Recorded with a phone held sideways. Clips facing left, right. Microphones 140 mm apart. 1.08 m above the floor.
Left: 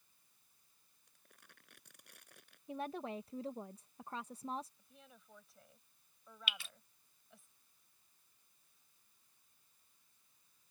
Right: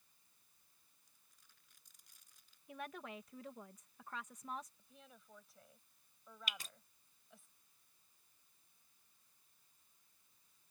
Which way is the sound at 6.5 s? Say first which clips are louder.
Left 2 dB; 40° right (ahead or behind).